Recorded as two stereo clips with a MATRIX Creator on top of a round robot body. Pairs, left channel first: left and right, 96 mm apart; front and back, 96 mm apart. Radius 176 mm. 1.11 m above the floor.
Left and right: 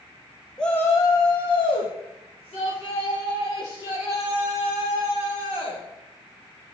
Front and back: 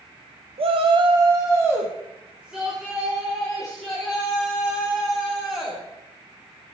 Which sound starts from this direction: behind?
A shout, at 0.6 s.